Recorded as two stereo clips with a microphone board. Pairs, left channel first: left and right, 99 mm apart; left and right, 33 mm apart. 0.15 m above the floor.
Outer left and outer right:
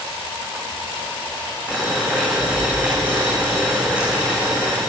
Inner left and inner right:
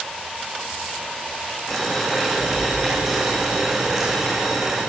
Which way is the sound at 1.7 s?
15° right (ahead or behind).